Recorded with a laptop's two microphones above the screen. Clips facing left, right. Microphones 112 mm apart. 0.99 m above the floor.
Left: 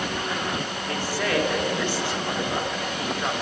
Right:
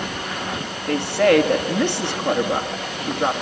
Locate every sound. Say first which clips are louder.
0.9 s a woman speaking: right 11 dB; 65° right (ahead or behind), 1.9 m